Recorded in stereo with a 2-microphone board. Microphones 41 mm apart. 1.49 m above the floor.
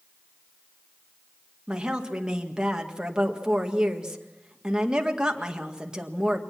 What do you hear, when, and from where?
1.7 s a woman speaking: 15° right (ahead or behind), 1.8 m